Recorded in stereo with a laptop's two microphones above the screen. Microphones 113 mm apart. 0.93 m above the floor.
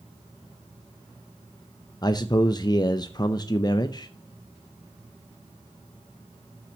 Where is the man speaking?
40° left (ahead or behind), 0.6 m.